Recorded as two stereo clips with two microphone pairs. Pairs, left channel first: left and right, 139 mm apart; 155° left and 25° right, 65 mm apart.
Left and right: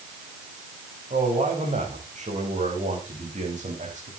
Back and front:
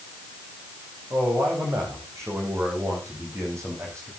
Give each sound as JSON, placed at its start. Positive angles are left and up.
{"t": 1.1, "sound": "a man speaking", "azimuth_deg": -60, "distance_m": 8.5}